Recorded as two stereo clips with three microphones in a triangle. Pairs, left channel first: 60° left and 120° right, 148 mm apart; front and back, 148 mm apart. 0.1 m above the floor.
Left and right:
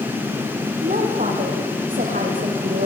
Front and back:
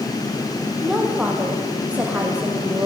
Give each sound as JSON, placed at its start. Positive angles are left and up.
{"t": 0.8, "sound": "a woman speaking", "azimuth_deg": -90, "distance_m": 5.0}